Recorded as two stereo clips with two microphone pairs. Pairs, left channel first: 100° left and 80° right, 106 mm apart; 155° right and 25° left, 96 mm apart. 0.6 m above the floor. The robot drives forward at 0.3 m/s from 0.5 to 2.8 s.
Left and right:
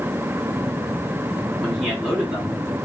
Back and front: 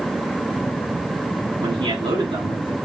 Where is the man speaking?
15° left, 2.5 m.